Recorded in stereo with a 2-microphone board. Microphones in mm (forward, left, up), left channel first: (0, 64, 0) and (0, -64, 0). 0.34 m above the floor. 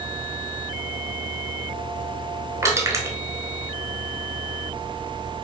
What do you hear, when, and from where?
2.6 s crushing: 25° right (ahead or behind), 0.9 m